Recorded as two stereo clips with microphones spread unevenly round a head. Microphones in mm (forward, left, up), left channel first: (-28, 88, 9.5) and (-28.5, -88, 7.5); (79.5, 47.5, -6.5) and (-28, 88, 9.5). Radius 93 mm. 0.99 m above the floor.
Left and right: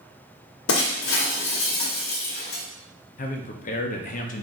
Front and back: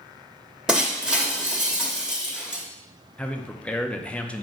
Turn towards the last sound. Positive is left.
turn(degrees=50)